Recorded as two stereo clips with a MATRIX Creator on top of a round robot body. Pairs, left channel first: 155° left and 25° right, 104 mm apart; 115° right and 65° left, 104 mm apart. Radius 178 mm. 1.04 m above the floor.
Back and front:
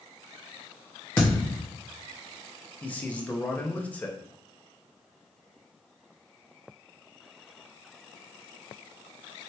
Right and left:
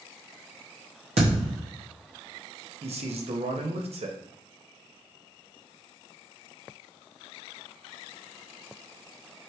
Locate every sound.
1.2 s a thud: 90° left, 0.6 m
2.8 s a man speaking: 80° left, 0.8 m